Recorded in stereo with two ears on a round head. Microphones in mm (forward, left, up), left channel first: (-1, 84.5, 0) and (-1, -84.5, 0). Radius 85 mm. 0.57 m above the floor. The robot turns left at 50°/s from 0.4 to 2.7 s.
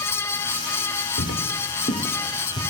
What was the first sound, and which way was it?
Footsteps, 65° left (ahead or behind).